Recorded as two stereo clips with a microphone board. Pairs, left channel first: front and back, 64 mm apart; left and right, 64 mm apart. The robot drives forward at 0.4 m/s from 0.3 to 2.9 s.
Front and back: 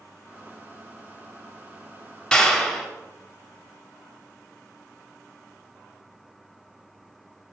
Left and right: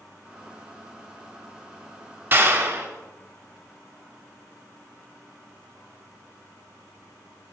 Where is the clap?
70° right, 0.8 m; by 2.9 s 95° right, 0.8 m.